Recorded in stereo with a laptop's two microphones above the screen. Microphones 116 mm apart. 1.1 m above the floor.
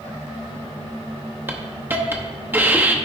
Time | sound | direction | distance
1.5 | a hiss | 15° right (ahead or behind) | 0.6 m